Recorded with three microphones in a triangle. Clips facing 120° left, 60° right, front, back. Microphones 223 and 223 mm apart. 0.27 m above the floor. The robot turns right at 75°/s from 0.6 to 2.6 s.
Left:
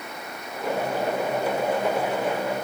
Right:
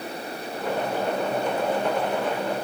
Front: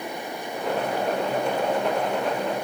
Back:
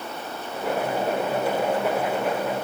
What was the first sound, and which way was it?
Only background noise.